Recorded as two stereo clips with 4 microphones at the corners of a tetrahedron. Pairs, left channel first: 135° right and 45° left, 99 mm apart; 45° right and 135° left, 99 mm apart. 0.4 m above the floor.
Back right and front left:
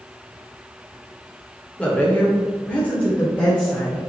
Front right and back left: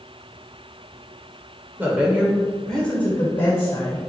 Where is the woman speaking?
170° left, 1.1 m; by 4.0 s 65° right, 1.4 m.